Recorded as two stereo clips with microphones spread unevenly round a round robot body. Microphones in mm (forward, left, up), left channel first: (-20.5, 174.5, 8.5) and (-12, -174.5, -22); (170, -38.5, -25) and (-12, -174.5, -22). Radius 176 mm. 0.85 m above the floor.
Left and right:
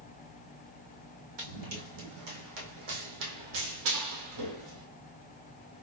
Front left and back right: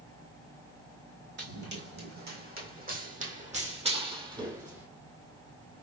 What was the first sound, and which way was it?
Running footsteps, 105° right.